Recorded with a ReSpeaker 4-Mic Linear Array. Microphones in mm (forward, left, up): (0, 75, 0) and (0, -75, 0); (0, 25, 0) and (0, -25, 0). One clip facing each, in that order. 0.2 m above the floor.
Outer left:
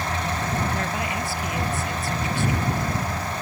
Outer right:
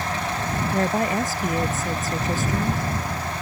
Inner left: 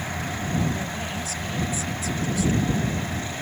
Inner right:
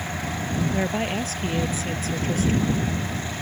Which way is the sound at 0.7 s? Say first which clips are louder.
Outer right 5 dB, inner right 6 dB; 40° right (ahead or behind).